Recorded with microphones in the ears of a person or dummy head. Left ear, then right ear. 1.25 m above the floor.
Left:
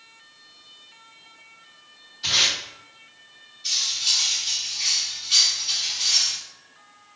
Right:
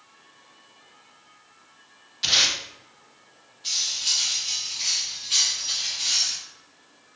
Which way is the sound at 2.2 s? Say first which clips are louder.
Even; 55° right (ahead or behind).